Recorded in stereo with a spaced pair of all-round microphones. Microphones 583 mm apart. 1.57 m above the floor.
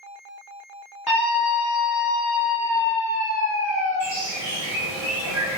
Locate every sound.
1.1 s a scream: 40° left (ahead or behind), 0.7 m; by 4.0 s 75° left (ahead or behind), 2.0 m
4.0 s a bird: 10° right (ahead or behind), 1.4 m